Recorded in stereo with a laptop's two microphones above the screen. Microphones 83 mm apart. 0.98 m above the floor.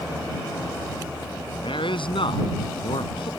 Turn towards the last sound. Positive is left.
turn(degrees=80)